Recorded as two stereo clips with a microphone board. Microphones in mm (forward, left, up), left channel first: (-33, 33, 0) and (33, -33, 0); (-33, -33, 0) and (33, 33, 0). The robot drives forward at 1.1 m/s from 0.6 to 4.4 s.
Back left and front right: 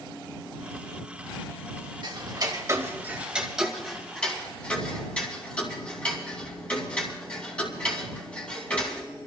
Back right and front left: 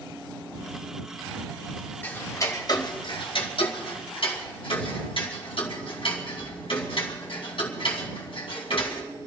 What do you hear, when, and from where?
2.0 s ticking: 65° right, 1.5 m; by 9.0 s 145° right, 2.5 m